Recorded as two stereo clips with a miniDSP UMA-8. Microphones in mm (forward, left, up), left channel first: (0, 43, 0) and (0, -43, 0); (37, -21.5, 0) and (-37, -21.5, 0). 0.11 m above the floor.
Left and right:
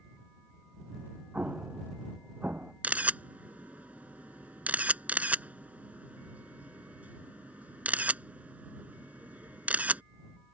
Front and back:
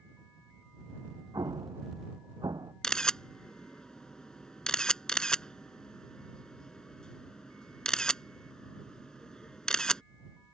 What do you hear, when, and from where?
1.3 s an explosion: 160° right
2.8 s a camera shutter: 60° right